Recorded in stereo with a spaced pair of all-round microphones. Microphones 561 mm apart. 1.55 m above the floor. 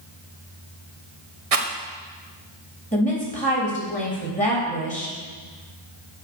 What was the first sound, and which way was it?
A rattle, 85° right.